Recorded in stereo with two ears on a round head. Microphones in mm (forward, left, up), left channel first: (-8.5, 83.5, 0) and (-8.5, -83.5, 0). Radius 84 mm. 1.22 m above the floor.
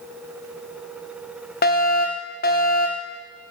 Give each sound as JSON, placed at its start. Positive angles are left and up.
{"t": 1.6, "sound": "a fire alarm", "side_deg": 50, "distance_m": 1.7}